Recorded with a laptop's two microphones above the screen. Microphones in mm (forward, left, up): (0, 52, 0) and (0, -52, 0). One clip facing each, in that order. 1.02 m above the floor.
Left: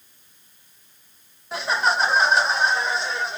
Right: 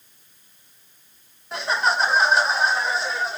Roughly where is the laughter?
Centre.